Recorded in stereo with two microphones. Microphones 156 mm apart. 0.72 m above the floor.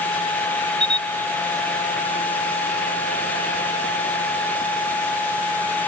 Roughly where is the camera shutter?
Right.